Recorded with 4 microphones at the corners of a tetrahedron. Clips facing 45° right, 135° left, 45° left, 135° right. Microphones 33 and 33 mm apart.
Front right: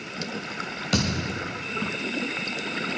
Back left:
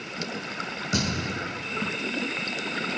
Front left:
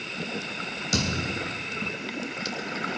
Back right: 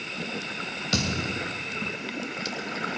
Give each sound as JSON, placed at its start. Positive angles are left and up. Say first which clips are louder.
{"t": 0.9, "sound": "a thud", "louder": "front right 2 dB, even", "azimuth_deg": -75, "distance_m": 3.5}